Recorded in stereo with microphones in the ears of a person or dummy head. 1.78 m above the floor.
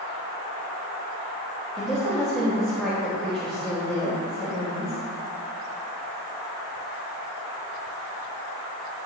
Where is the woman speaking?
5° left (ahead or behind), 3 m.